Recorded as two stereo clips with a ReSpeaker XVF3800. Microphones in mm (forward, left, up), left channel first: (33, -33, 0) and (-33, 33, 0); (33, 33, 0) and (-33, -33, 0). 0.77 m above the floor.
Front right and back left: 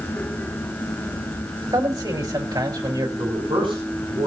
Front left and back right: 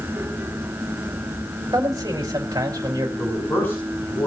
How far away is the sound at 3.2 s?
About 6 m.